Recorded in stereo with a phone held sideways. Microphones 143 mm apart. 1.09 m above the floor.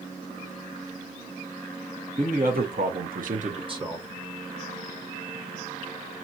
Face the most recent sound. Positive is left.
turn(degrees=-15)  # may be behind; listen again after turning